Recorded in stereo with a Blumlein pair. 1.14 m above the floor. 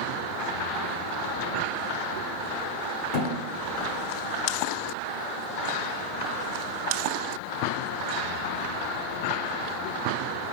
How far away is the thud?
About 1.3 m.